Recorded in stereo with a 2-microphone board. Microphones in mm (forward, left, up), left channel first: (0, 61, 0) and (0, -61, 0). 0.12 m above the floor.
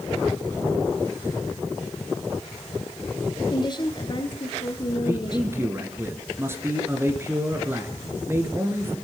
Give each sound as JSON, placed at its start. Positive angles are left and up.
{"t": 3.5, "sound": "a woman speaking", "side_deg": 40, "distance_m": 1.5}
{"t": 5.0, "sound": "a man speaking", "side_deg": -20, "distance_m": 1.9}